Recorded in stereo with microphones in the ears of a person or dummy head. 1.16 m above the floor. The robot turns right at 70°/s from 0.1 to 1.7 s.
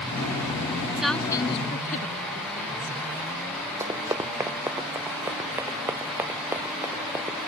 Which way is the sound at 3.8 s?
15° right (ahead or behind).